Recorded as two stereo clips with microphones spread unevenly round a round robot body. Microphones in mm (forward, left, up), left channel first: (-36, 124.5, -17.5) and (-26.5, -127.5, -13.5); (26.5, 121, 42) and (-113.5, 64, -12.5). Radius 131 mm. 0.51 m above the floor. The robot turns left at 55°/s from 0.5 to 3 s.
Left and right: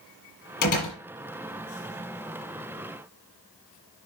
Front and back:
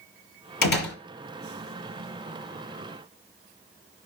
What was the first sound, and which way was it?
A door slam, 35° left.